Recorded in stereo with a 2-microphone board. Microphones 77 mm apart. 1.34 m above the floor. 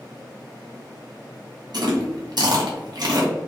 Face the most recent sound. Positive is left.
turn(degrees=-60)  # may be behind; listen again after turning